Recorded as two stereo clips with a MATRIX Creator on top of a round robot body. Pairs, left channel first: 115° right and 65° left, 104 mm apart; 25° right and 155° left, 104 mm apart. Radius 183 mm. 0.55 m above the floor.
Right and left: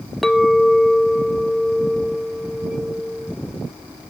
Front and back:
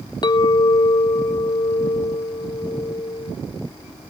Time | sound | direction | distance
0.2 | a clink | 25° right | 0.6 m